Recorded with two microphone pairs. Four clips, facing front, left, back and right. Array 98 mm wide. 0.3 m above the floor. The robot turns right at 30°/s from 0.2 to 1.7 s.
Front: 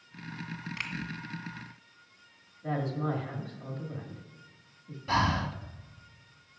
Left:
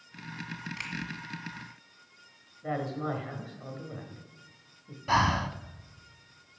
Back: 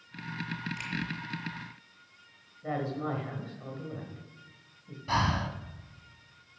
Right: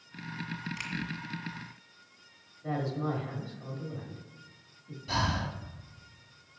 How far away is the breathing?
About 0.7 m.